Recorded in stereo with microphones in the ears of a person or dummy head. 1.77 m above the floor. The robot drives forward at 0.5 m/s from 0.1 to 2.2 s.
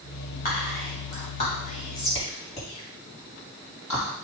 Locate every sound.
0.5 s whispering: 50° left (ahead or behind), 3.5 m; by 4.1 s 40° left (ahead or behind), 4 m